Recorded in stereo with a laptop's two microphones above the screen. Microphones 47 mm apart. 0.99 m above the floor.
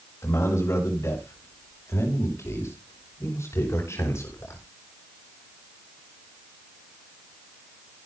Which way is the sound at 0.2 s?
75° left (ahead or behind).